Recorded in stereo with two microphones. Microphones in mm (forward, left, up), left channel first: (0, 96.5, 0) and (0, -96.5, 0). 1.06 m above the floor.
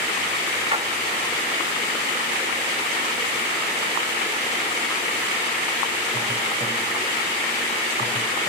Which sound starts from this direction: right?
A splash, at 0.7 s.